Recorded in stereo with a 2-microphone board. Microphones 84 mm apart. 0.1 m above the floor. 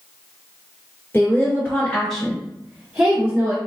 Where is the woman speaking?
30° left (ahead or behind), 1.6 m; by 3.6 s 25° right (ahead or behind), 1.6 m.